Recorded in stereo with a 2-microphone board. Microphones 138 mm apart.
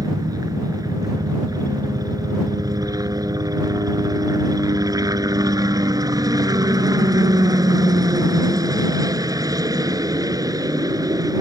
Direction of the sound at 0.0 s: 25° right (ahead or behind).